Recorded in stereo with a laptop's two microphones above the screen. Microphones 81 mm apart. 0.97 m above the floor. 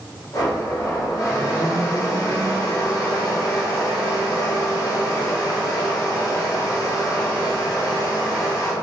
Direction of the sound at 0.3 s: 45° left (ahead or behind).